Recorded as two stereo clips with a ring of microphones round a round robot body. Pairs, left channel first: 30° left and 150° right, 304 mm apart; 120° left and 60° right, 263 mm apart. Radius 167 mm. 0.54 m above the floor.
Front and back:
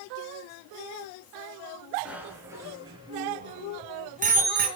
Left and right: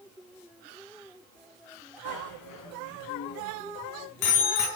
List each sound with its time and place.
2.0 s a bicycle bell: 125° left, 4 m; by 4.7 s 145° left, 5 m